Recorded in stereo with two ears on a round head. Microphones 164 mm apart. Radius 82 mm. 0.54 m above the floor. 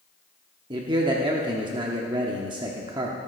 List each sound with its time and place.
0.7 s a man speaking: 25° right (ahead or behind), 1.0 m